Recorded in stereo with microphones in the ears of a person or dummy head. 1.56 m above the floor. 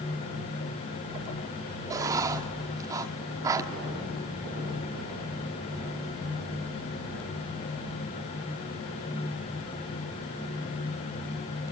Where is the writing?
20° right (ahead or behind), 1.1 m.